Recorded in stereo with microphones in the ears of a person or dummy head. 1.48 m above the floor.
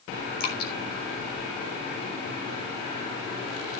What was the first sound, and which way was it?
Dripping, 60° left (ahead or behind).